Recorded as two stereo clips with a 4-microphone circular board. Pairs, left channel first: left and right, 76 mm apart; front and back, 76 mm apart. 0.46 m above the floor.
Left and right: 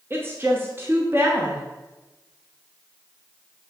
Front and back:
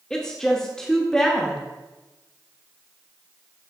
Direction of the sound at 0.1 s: 75° right.